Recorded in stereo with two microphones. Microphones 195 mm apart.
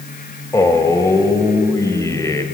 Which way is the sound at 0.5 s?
15° left (ahead or behind).